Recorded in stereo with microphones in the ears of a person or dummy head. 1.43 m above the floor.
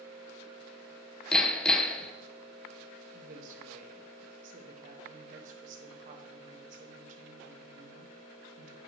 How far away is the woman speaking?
About 1.4 m.